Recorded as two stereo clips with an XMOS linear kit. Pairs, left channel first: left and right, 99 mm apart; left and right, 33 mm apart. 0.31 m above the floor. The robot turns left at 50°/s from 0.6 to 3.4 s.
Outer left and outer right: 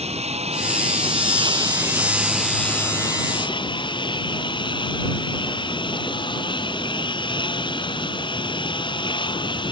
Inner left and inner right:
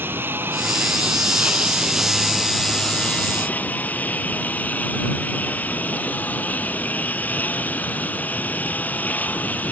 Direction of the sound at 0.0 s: 90° right.